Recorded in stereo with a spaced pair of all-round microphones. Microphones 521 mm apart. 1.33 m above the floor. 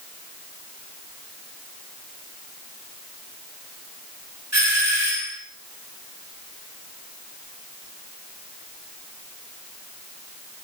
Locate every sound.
4.5 s a doorbell: 30° right (ahead or behind), 6.5 m